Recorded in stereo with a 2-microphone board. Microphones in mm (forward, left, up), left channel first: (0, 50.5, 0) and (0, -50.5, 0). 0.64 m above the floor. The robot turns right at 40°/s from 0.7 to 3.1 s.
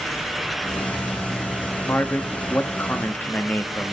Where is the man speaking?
20° left (ahead or behind), 0.6 m; by 4.0 s 15° left (ahead or behind), 0.6 m.